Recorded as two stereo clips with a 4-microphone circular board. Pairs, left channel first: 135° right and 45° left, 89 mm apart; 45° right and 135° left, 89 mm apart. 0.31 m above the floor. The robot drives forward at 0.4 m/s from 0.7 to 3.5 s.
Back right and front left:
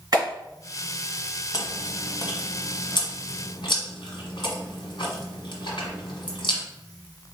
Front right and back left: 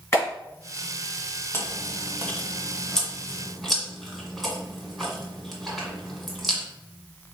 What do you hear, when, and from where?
0.1 s a clap: 10° left, 2.5 m
1.5 s chewing: 105° right, 1.1 m; by 6.6 s 135° right, 1.5 m